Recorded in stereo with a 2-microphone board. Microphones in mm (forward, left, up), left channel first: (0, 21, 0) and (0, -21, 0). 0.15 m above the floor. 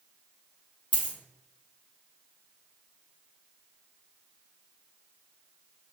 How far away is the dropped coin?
About 1.9 m.